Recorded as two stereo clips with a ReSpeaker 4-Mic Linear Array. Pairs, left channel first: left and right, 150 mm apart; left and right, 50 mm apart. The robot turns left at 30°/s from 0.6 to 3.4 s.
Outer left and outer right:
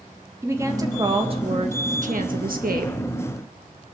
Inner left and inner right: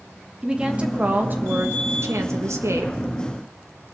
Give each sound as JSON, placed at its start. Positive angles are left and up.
{"t": 0.4, "sound": "a woman speaking", "azimuth_deg": -20, "distance_m": 1.6}